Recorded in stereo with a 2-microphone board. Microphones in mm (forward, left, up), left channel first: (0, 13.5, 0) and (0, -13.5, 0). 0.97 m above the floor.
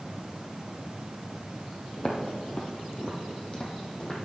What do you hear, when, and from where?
2.0 s footsteps: 35° left (ahead or behind), 1.7 m; by 4.2 s 30° left (ahead or behind), 2 m